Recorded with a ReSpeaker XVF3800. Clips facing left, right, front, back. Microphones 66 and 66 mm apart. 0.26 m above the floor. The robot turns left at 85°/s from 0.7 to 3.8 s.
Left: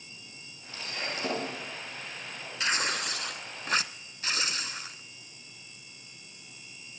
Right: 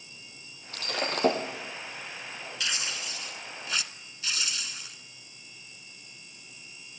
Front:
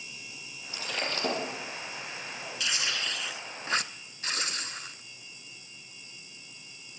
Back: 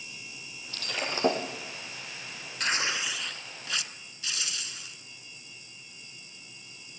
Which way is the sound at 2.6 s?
140° left.